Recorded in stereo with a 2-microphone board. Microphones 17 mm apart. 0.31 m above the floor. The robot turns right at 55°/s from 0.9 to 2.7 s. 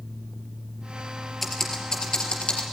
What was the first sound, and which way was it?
Typing on a keyboard, 5° left (ahead or behind).